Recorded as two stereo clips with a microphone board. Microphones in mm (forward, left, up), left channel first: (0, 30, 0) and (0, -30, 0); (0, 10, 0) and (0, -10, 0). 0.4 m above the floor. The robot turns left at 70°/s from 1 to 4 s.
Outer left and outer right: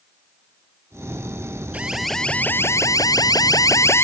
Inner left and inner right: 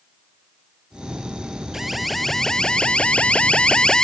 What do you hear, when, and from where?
1.7 s an alarm: 155° right; by 4.0 s 45° left